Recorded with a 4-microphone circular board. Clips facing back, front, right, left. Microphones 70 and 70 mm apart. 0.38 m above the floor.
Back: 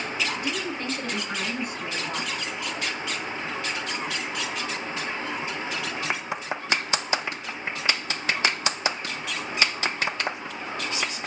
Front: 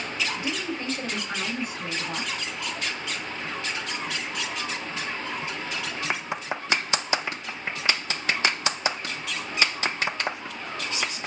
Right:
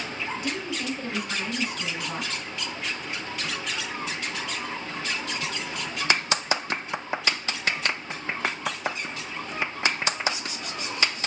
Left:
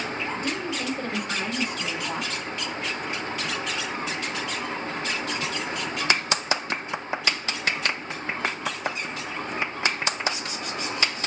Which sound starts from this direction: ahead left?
A woman speaking, at 0.4 s.